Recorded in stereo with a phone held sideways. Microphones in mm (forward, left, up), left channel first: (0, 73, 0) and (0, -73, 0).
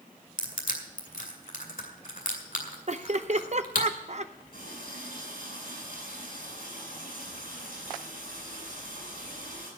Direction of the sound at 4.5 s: 90° left.